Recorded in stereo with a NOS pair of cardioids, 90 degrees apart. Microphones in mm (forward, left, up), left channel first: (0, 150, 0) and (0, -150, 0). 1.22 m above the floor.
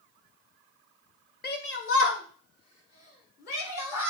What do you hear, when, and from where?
1.4 s a shout: 30° left, 0.6 m; by 4.1 s 60° left, 2 m